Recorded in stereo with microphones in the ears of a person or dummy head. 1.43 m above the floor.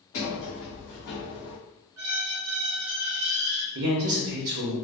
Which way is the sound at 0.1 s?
60° left (ahead or behind).